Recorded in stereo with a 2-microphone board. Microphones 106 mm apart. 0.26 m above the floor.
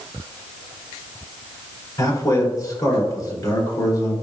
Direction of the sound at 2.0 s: 35° left (ahead or behind).